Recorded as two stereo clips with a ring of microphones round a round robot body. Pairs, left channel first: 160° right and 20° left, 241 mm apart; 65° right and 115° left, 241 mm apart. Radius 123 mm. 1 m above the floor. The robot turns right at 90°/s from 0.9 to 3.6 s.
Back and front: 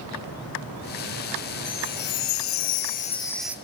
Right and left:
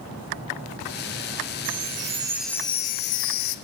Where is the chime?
130° left, 0.6 m; by 3.5 s 55° right, 0.6 m.